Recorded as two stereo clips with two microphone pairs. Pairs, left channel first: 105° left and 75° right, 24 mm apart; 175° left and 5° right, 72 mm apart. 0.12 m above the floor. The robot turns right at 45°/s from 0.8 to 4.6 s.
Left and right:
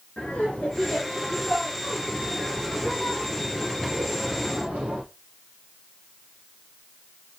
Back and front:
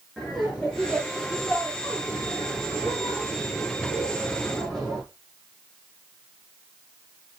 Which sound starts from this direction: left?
Laughter, at 0.2 s.